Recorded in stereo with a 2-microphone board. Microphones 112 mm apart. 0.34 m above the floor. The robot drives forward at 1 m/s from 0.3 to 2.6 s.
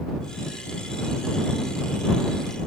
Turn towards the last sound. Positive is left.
No sound to turn to.